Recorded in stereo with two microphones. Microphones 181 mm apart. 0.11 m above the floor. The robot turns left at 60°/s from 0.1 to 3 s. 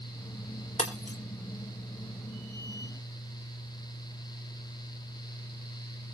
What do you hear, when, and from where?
0.8 s breaking glass: 35° left (ahead or behind), 3 m; by 1.2 s 55° left (ahead or behind), 3 m